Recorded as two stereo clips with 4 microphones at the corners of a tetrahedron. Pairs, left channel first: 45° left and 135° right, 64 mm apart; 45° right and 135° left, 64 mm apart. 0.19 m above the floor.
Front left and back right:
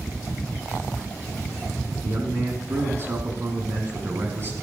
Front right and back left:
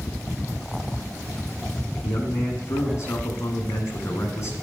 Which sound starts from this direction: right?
A man speaking, at 2.0 s.